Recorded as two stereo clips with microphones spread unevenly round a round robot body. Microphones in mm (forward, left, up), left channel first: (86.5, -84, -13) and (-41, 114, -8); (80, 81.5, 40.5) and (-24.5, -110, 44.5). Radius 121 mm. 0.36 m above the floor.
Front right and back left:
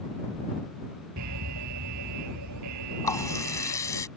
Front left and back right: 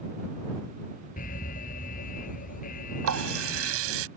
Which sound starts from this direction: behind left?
An alarm, at 1.2 s.